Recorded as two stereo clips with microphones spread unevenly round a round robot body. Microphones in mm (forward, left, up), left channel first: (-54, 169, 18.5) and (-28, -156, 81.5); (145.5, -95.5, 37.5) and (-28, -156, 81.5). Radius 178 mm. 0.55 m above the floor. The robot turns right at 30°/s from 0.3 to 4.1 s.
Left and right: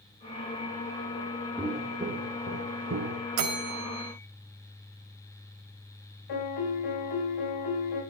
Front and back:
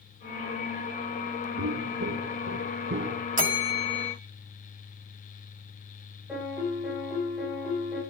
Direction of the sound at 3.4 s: 110° right.